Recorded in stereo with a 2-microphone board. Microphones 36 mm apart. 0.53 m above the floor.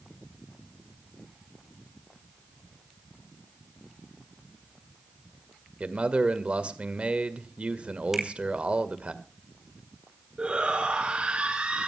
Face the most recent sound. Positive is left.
turn(degrees=-30)  # may be behind; listen again after turning